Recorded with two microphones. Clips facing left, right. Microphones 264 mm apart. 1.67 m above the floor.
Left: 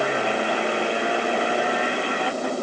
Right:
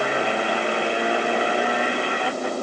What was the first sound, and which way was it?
Only background noise.